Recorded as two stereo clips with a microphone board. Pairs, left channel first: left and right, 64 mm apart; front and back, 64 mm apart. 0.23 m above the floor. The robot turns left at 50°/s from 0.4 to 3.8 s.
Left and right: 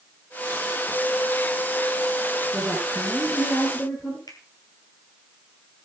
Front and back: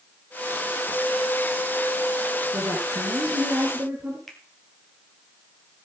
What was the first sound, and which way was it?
A woman speaking, 160° right.